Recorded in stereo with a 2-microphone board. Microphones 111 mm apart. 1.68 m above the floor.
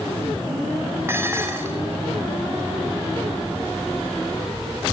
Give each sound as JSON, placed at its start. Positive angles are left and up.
{"t": 1.1, "sound": "dishes clattering", "side_deg": -20, "distance_m": 3.0}